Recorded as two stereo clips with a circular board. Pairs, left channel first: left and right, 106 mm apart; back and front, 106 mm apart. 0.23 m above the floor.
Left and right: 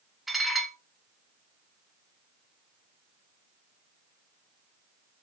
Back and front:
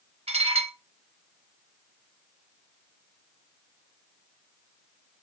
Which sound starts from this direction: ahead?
Dishes clattering, at 0.3 s.